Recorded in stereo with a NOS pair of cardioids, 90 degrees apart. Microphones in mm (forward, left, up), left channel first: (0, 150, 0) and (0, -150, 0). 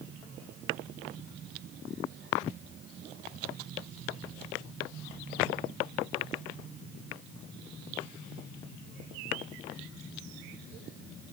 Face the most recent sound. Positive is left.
No sound to turn to.